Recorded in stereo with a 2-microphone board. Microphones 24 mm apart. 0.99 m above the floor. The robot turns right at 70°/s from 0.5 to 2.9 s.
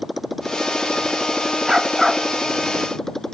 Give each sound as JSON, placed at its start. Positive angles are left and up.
{"t": 0.0, "sound": "a motorcycle", "azimuth_deg": -5}
{"t": 1.7, "sound": "a dog barking", "azimuth_deg": -25}